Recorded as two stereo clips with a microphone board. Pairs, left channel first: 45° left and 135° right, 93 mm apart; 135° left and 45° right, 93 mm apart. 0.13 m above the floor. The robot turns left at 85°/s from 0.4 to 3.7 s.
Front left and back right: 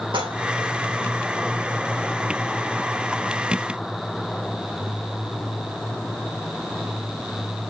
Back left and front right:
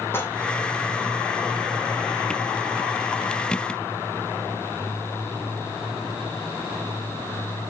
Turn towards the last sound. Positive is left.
turn(degrees=-80)